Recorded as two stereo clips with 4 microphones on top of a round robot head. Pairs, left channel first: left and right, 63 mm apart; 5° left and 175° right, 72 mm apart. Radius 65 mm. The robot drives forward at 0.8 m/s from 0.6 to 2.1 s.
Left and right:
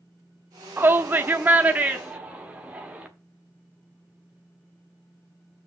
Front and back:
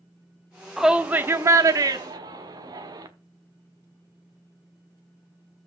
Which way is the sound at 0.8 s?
90° right.